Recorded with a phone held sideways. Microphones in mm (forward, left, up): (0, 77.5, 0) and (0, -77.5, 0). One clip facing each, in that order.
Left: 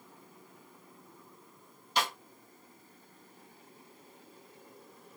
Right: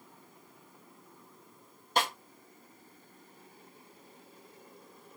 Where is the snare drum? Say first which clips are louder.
Right 2 dB; 50° right (ahead or behind), 1.3 m.